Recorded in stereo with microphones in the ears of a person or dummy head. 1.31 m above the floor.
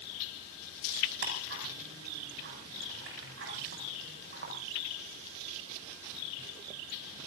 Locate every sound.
1.2 s ticking: 65° right (ahead or behind), 8.5 m